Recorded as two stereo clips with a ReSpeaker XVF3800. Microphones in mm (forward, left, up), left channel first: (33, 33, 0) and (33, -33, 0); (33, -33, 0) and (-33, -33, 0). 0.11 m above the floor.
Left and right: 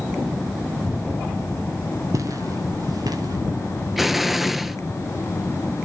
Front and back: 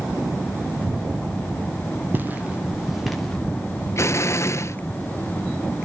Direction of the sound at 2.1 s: 120° right.